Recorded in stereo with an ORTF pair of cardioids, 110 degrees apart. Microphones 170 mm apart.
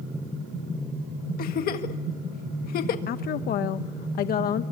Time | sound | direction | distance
1.4 | a giggle | 65° left | 1.7 m
3.1 | a woman speaking | 65° left | 0.8 m